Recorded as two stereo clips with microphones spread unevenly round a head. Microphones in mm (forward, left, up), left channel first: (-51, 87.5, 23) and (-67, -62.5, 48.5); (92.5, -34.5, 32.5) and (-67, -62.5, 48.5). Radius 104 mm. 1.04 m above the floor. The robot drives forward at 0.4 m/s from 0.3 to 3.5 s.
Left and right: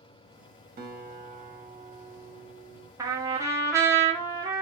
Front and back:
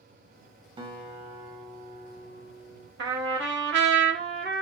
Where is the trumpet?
165° right, 1.3 m.